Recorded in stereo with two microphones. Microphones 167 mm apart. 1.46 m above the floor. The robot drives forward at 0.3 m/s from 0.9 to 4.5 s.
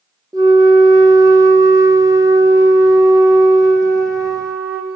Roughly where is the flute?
Right.